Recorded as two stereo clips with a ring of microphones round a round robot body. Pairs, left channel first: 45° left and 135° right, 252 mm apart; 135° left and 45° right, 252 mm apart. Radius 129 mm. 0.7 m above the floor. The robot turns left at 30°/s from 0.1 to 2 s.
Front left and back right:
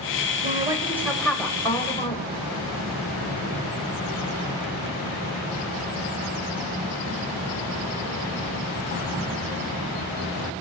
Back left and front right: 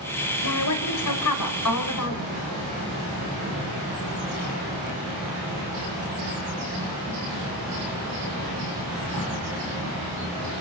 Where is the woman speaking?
155° left, 4 m; by 2.3 s 110° left, 4 m.